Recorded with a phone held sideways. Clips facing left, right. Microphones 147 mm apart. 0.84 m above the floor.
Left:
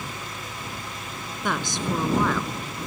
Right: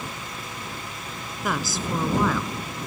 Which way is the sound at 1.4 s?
5° right (ahead or behind).